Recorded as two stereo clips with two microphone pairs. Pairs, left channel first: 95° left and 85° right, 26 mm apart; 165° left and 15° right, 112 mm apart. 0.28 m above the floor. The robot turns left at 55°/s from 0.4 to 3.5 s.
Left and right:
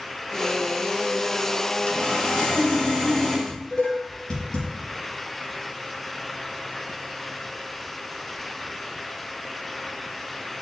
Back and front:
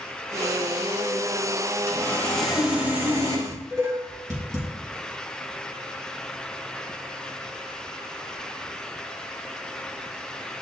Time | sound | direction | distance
1.9 | sawing | 110° left | 1.8 m
3.5 | dishes clattering | 45° left | 3 m